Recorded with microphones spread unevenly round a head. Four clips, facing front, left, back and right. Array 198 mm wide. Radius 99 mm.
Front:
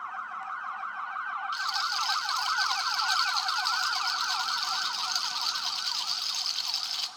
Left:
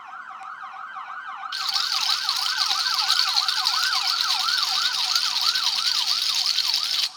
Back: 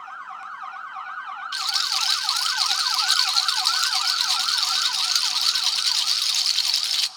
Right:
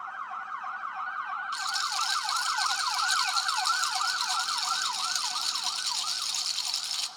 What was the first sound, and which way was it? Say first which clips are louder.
A rattle: even, even; 125° left.